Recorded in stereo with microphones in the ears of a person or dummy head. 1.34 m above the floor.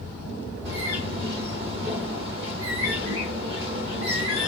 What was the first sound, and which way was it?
A bird, 55° right (ahead or behind).